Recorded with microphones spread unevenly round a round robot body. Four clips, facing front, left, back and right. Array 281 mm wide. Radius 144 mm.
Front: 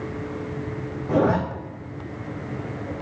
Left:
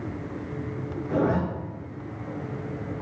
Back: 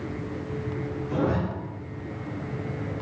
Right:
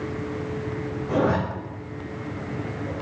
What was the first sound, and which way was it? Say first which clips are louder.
A zipper: right 2 dB, front 7 dB; 15° right.